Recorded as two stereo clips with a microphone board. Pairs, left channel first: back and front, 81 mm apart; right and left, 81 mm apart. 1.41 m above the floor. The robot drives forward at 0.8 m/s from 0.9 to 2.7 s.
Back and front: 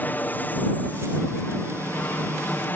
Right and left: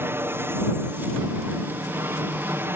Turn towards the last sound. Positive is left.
turn(degrees=130)